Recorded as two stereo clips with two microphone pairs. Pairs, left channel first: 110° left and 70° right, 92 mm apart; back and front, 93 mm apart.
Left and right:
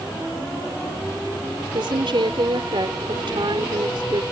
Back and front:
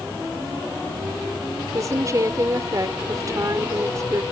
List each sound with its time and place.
1.7 s a woman speaking: 50° right